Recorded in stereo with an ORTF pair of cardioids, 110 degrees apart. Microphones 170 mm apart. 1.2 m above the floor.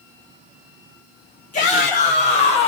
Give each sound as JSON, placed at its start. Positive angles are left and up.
{"t": 1.5, "sound": "a shout", "azimuth_deg": 50, "distance_m": 2.0}